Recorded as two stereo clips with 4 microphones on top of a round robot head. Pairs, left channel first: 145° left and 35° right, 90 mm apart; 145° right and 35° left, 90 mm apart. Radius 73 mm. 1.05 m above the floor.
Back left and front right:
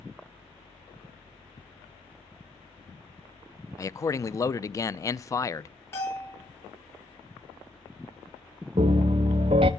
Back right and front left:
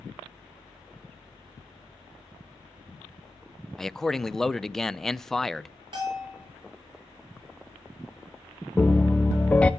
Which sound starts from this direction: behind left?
A man speaking, at 3.8 s.